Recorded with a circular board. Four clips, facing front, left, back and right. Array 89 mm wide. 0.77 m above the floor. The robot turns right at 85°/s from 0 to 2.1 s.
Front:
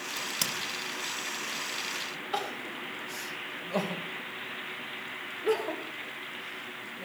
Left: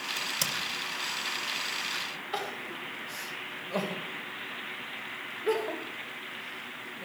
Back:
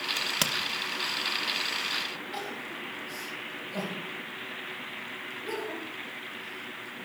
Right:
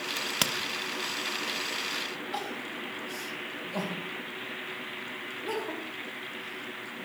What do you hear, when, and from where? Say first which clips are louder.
0.2 s a crack: right 5 dB, back 4 dB; 145° right, 1.3 m; by 0.5 s 110° right, 1.3 m
2.3 s crying: left 2 dB, front 6 dB; 35° left, 2.5 m